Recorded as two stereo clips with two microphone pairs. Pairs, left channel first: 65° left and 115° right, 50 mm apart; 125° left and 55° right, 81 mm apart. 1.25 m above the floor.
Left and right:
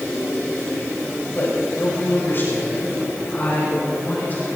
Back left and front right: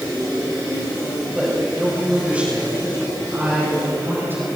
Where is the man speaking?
30° left, 6.5 m; by 4.5 s 10° left, 8 m.